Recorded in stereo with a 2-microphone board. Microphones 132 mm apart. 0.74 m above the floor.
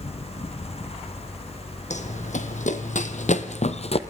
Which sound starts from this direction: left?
Running footsteps, at 1.9 s.